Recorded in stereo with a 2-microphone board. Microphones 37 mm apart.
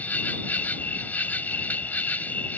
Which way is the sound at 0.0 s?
55° left (ahead or behind).